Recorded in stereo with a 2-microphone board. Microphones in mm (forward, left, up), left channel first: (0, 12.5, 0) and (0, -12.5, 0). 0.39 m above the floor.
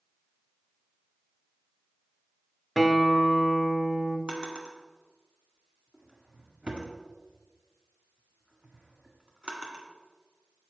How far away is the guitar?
About 0.9 m.